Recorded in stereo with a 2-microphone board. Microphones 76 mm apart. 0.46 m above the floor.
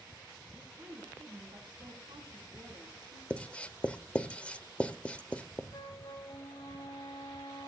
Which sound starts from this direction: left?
A flute, at 5.7 s.